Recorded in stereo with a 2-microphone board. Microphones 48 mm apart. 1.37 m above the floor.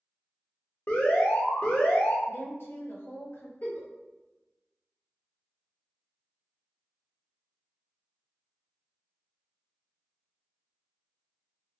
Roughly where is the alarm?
Left.